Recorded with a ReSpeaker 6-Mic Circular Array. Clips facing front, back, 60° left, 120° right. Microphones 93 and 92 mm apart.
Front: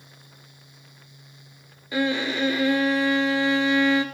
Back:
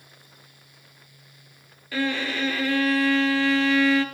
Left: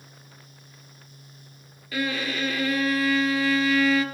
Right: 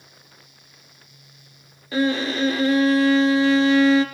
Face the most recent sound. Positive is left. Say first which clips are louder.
# front 2 dB, right 7 dB
turn(degrees=-70)